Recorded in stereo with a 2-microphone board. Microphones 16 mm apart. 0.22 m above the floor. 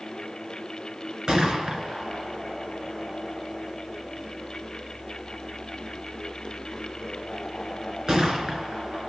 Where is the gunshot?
45° right (ahead or behind), 3.5 m.